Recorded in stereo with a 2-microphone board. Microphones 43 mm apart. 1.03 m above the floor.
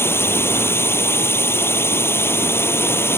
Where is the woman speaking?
I don't hear a woman speaking.